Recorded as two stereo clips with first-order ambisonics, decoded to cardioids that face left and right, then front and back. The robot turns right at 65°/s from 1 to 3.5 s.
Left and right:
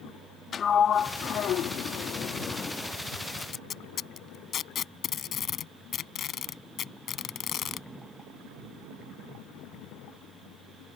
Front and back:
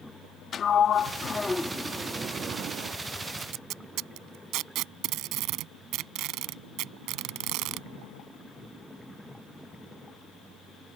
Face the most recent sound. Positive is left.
turn(degrees=145)